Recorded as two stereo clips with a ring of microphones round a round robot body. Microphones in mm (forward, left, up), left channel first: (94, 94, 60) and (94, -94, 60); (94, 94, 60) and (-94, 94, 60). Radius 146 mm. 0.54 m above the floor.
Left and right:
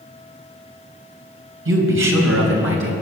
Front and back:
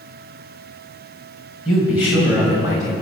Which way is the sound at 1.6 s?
90° right.